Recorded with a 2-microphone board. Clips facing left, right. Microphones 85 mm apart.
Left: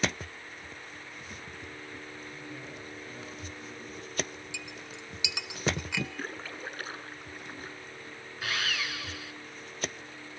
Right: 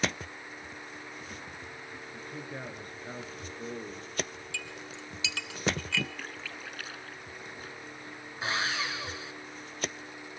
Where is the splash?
40° left (ahead or behind), 0.7 m.